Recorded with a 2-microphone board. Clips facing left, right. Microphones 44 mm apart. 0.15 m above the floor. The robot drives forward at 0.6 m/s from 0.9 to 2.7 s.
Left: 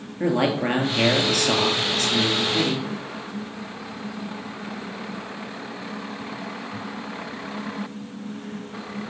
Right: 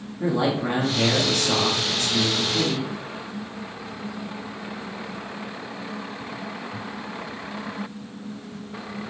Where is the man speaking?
65° left (ahead or behind), 2.5 m; by 2.9 s 60° left (ahead or behind), 2.5 m.